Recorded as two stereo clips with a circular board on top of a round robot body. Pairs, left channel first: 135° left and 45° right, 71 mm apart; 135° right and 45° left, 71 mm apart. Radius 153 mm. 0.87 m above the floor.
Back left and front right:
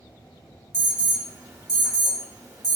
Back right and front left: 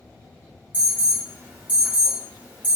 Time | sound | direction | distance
0.7 | an alarm | 20° right | 2 m